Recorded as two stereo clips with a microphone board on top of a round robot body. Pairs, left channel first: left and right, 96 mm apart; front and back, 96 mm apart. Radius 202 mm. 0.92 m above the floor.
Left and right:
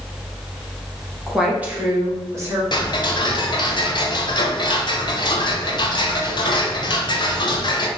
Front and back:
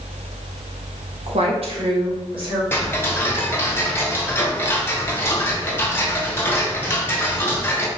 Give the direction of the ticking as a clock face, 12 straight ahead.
10 o'clock.